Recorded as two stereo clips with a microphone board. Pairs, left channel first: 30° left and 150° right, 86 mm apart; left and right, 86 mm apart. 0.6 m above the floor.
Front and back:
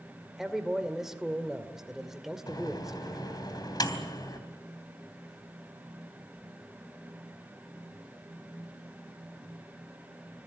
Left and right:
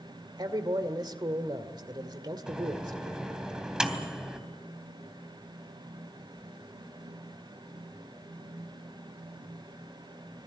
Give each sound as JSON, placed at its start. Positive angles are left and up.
{"t": 0.4, "sound": "a man speaking", "azimuth_deg": -65, "distance_m": 2.0}
{"t": 2.5, "sound": "a microwave", "azimuth_deg": -5, "distance_m": 3.0}